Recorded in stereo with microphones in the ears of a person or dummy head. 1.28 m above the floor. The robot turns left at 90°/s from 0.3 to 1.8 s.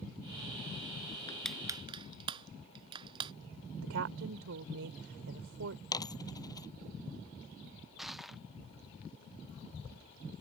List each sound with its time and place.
1.3 s crushing: 20° left (ahead or behind); by 3.3 s 30° right (ahead or behind)
3.8 s a woman speaking: 80° right
5.9 s a dropped coin: 25° left (ahead or behind)
8.0 s crushing: 5° left (ahead or behind)